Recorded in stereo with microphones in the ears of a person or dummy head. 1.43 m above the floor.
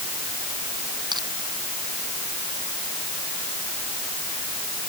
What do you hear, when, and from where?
1.1 s crushing: 15° right (ahead or behind)